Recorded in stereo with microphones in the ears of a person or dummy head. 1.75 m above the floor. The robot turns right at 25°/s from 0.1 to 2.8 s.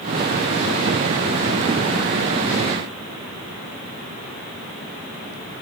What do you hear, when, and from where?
Only background noise.